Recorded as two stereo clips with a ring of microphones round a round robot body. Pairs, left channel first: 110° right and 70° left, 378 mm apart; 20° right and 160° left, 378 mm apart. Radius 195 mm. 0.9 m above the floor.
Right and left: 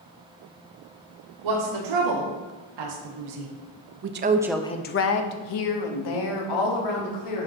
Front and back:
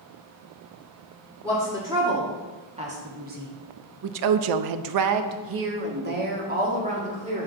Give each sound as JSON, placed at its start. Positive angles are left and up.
{"t": 1.4, "sound": "a woman speaking", "azimuth_deg": 75, "distance_m": 2.5}